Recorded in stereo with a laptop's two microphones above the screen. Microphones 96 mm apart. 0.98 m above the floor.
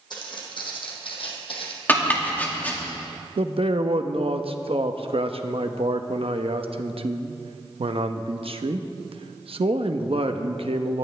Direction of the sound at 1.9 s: 20° left (ahead or behind).